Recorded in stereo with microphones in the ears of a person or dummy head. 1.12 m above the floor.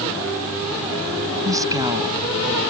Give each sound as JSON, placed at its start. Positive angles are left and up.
{"t": 1.4, "sound": "a woman speaking", "side_deg": -20}